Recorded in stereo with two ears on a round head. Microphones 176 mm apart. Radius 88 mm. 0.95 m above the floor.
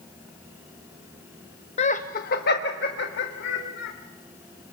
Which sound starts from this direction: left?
Laughter, at 1.8 s.